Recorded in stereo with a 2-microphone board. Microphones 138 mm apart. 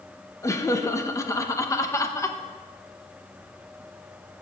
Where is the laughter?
20° left (ahead or behind), 0.9 m.